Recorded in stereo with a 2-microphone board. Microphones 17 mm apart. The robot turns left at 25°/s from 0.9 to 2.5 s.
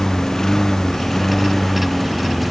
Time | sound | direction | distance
0.0 | a lawn mower | 25° left (ahead or behind) | ?